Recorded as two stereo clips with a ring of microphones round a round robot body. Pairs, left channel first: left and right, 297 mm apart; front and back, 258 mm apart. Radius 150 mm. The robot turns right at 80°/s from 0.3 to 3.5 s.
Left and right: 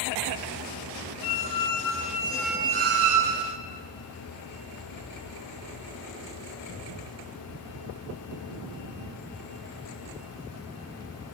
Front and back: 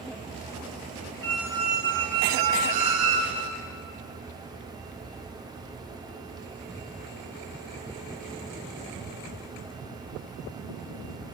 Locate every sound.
1.2 s a squeak: 80° left, 0.5 m; by 3.6 s 95° right, 0.5 m